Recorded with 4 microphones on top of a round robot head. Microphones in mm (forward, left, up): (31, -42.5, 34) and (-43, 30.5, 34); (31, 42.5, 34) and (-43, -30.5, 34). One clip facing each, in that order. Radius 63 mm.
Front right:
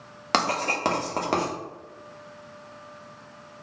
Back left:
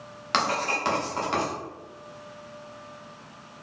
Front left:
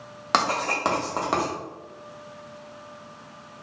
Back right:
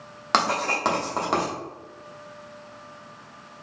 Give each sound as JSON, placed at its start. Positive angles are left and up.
{"t": 0.3, "sound": "writing", "azimuth_deg": -45, "distance_m": 1.1}